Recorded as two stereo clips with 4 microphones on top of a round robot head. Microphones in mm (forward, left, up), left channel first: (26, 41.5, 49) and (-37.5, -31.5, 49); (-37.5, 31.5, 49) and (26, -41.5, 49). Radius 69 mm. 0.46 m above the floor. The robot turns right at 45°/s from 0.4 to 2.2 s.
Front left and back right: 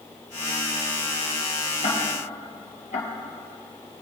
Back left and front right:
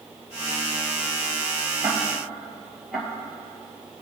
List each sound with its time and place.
1.8 s ticking: 25° left, 1.6 m; by 3.1 s 40° left, 1.6 m